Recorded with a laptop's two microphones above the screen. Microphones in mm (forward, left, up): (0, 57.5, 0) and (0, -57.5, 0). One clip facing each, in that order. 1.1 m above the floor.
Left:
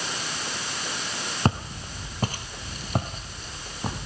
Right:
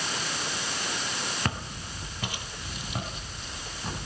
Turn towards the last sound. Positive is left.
turn(degrees=40)  # may be behind; listen again after turning